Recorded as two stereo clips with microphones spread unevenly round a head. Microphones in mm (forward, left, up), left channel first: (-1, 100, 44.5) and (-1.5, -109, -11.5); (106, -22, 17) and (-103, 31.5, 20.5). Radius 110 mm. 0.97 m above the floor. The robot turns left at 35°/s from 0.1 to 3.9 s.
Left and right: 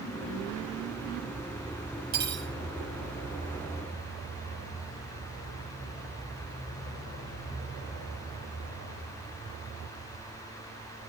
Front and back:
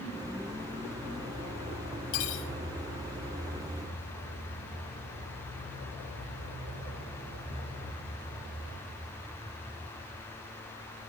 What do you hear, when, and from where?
2.1 s cutlery clinking: 40° right, 4 m; by 2.5 s 55° right, 4 m